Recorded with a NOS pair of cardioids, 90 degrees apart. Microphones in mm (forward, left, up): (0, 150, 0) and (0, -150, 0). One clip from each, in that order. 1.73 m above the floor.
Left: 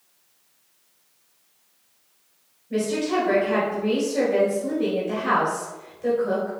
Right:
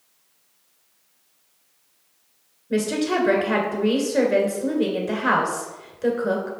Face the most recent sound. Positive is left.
turn(degrees=-60)